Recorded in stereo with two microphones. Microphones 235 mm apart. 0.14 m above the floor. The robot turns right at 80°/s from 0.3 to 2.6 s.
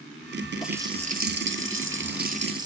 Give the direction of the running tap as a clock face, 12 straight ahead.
6 o'clock.